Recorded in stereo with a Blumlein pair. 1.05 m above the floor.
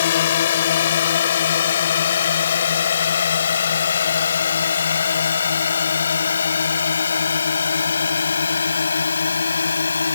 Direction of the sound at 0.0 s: 60° left.